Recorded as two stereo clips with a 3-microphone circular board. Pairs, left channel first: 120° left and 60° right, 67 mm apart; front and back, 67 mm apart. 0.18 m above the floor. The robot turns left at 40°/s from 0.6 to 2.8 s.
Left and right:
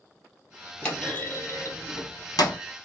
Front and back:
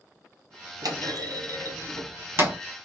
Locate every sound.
0.8 s a clunk: 165° right, 1.0 m; by 2.6 s 125° left, 1.0 m